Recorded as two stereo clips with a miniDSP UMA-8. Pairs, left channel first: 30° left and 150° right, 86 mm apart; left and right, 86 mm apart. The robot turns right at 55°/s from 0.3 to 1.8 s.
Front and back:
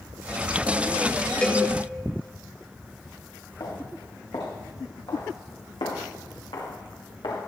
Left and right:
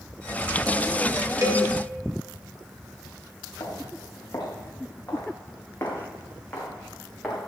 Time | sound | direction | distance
1.4 | a cowbell | 45° right | 1.7 m
3.6 | footsteps | 50° left | 5.5 m